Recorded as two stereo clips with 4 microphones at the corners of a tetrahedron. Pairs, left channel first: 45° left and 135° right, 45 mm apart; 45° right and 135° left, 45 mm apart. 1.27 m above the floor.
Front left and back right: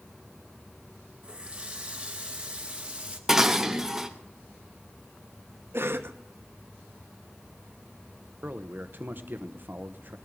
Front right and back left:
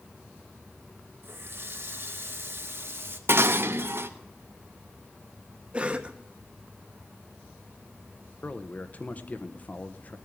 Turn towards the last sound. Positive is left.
turn(degrees=-95)